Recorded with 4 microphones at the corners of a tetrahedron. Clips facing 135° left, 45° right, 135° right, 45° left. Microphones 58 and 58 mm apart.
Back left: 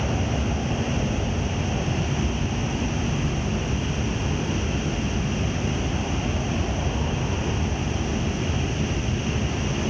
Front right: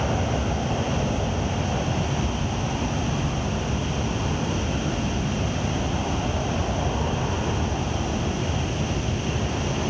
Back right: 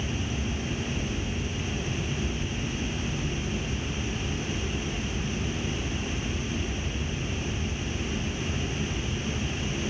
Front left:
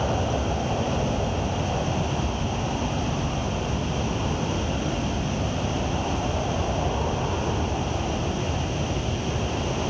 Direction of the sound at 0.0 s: 30° left.